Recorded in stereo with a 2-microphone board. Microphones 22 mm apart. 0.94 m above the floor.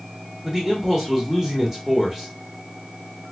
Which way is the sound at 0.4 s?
Centre (ahead or behind).